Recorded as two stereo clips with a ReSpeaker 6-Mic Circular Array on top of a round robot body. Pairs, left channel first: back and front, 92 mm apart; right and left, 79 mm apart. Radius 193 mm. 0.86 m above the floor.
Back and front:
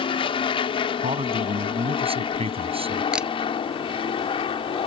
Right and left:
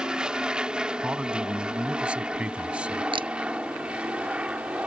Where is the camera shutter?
80° left.